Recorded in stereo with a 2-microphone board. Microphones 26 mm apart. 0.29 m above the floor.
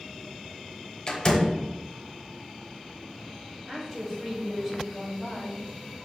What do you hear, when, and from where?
1.1 s a door slam: 25° left (ahead or behind), 0.8 m
3.7 s a woman speaking: centre (ahead or behind), 1.5 m